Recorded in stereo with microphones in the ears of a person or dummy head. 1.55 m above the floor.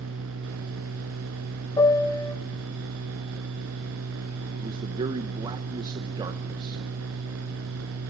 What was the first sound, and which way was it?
A machine running, 70° right (ahead or behind).